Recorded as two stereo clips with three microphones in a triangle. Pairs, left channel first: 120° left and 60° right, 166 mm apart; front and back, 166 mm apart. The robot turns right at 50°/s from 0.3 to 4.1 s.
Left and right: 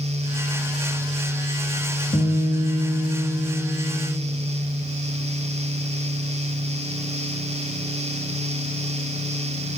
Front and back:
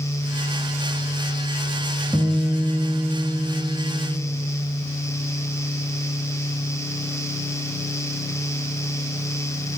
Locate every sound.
2.1 s a guitar: 70° left, 3 m; by 4.2 s 170° left, 3 m